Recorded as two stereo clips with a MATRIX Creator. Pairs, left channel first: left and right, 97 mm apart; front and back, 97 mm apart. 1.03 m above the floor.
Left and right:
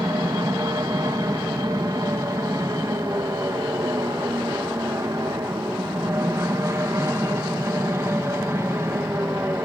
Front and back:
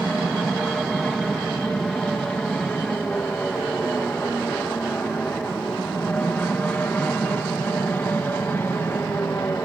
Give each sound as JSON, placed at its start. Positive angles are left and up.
{"t": 0.0, "sound": "an aircraft", "azimuth_deg": -90}